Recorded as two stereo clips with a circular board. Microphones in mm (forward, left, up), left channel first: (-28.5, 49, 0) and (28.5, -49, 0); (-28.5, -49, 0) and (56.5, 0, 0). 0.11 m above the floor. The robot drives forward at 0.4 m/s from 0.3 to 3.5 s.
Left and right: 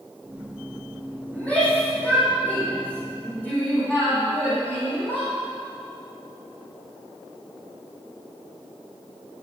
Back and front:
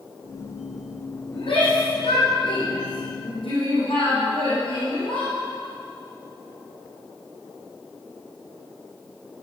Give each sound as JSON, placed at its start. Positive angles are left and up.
{"t": 1.3, "sound": "a shout", "azimuth_deg": -165, "distance_m": 5.5}